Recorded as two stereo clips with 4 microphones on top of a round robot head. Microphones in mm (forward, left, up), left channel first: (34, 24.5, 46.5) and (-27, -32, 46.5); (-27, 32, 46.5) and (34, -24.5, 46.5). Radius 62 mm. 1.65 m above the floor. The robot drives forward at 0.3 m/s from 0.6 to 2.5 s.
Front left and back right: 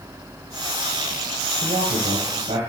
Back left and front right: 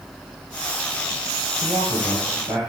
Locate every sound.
1.6 s a man speaking: 130° right, 1.3 m; by 2.6 s 135° right, 1.5 m